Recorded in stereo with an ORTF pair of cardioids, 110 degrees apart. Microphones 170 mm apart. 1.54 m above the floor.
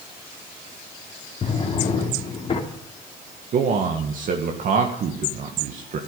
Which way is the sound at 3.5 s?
50° right.